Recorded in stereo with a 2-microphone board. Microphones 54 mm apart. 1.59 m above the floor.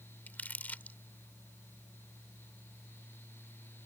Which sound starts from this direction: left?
Crumpling, at 0.3 s.